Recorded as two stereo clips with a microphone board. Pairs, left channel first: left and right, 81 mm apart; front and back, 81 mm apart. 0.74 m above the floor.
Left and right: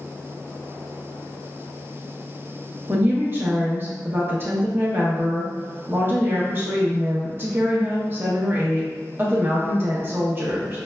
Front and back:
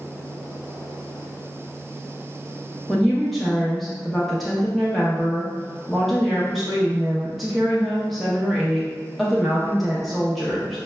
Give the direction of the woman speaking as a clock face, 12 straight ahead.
3 o'clock.